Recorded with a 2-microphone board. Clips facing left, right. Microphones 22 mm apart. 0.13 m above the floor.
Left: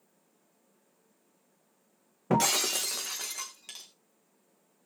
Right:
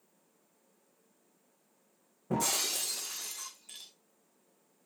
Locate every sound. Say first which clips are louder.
2.3 s breaking glass: left 5 dB; 75° left (ahead or behind), 3.5 m